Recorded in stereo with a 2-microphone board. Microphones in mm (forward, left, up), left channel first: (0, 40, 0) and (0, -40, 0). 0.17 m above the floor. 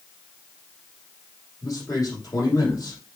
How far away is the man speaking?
About 5.5 m.